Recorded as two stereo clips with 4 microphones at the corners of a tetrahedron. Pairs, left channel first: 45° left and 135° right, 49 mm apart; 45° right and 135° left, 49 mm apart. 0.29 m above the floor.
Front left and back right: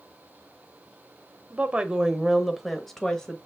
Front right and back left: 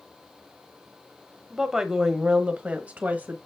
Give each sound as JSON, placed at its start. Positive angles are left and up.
{"t": 1.5, "sound": "a woman speaking", "azimuth_deg": -140, "distance_m": 1.1}